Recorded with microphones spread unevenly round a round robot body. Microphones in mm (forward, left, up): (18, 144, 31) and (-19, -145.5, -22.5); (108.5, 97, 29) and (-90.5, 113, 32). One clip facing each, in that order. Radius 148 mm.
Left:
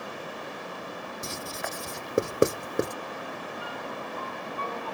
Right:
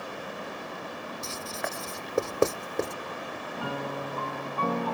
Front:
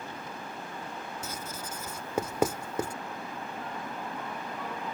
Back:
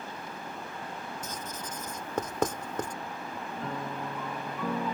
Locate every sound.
1.2 s writing: 70° left
3.6 s a piano: 140° right